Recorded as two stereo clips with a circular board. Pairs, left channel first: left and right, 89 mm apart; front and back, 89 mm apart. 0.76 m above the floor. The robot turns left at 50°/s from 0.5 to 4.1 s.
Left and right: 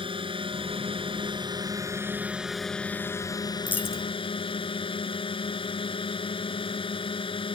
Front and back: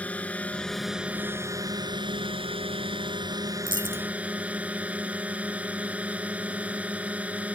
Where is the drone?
75° right; by 7.6 s 105° left.